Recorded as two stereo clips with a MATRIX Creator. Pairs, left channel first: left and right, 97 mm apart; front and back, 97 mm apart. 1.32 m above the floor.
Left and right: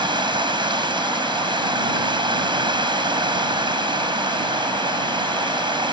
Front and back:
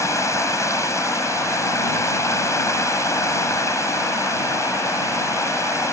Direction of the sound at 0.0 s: 55° right.